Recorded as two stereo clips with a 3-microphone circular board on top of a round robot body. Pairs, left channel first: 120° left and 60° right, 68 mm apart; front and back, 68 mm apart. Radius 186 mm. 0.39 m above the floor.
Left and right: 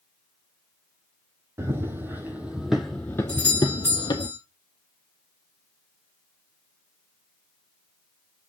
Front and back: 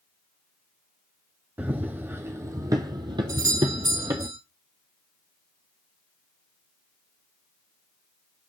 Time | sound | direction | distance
1.6 | running footsteps | 115° right | 1.0 m
3.3 | a doorbell | straight behind | 4 m